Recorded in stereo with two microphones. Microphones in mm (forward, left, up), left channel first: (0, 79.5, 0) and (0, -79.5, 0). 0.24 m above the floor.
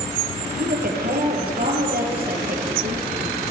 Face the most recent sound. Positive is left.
turn(degrees=-65)  # may be behind; listen again after turning